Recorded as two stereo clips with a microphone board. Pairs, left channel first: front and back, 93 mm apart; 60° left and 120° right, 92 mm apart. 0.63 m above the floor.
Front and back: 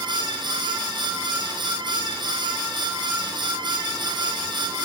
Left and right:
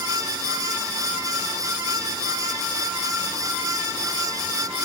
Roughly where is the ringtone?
I don't hear a ringtone.